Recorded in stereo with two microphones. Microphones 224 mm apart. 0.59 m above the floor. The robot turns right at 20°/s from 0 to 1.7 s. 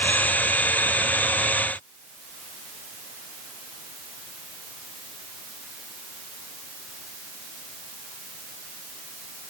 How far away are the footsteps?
I don't hear footsteps.